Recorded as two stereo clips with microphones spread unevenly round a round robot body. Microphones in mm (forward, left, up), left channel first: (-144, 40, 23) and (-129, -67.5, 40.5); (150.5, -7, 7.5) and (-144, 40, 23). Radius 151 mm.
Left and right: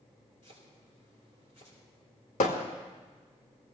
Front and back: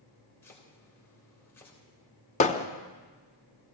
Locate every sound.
0.4 s chopping: 75° left, 3.5 m
2.4 s hammering: 60° left, 0.8 m